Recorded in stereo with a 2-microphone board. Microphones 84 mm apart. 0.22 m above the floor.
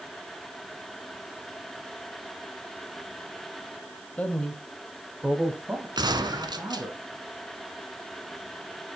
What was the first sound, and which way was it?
A man speaking, 20° left (ahead or behind).